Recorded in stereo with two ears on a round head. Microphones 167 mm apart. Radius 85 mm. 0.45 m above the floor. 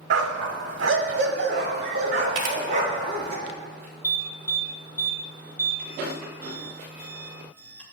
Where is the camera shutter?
45° right (ahead or behind), 1.2 m.